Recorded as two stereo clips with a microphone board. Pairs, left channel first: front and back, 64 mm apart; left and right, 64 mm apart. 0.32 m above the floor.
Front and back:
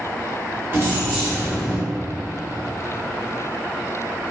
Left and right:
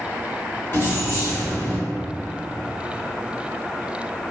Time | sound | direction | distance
0.7 | keys jangling | 135° left | 1.2 m